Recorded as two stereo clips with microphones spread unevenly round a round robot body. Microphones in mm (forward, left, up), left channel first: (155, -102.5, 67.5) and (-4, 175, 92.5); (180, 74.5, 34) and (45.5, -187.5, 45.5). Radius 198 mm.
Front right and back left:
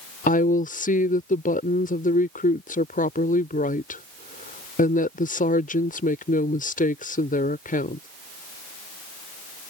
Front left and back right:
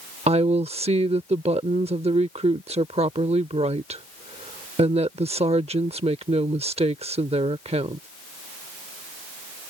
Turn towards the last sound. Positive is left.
turn(degrees=-65)